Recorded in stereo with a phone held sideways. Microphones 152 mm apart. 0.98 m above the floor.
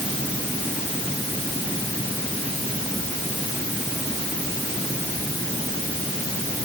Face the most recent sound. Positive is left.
No sound to turn to.